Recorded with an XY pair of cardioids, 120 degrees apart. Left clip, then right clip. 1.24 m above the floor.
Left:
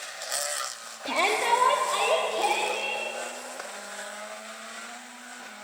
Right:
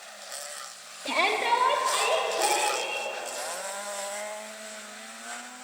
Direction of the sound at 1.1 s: 15° left.